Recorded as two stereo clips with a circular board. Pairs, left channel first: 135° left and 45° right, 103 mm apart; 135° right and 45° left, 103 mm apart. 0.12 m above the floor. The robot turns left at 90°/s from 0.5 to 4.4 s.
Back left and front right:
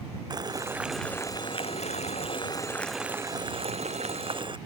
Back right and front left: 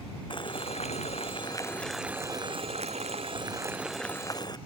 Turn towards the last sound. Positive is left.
turn(degrees=-85)